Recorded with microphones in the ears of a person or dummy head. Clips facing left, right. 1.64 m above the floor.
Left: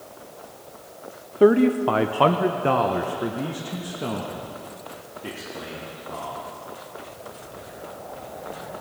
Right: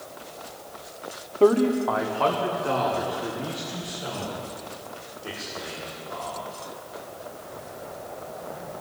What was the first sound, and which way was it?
A man speaking, 10° left (ahead or behind).